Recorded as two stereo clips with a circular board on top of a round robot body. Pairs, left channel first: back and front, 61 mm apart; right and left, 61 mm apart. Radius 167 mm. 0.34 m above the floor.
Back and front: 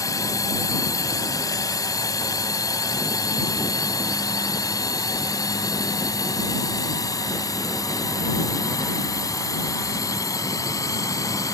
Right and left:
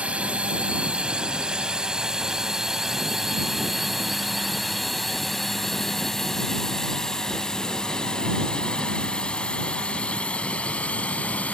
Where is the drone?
160° left; by 11.6 s 155° right.